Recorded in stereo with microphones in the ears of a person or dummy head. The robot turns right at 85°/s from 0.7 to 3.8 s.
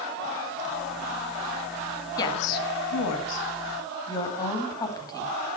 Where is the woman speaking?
20° left (ahead or behind), 1.9 m.